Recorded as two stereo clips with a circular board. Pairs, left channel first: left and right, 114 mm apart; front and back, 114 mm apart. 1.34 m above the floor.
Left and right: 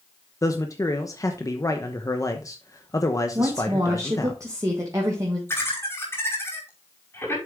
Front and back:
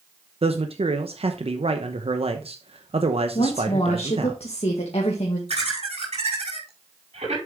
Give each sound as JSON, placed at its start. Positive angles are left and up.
{"t": 0.4, "sound": "a man speaking", "azimuth_deg": 150, "distance_m": 0.8}
{"t": 3.4, "sound": "a woman speaking", "azimuth_deg": -30, "distance_m": 1.5}
{"t": 5.5, "sound": "laughter", "azimuth_deg": 160, "distance_m": 5.0}